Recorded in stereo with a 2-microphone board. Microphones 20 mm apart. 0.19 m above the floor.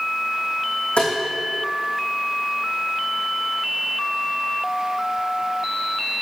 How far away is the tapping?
About 3 m.